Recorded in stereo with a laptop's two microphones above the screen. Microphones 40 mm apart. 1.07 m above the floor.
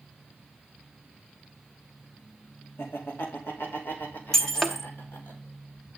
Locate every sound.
2.8 s laughter: 75° left (ahead or behind), 3 m; by 5.3 s 60° left (ahead or behind), 4.5 m
4.3 s breaking glass: 15° left (ahead or behind), 1.2 m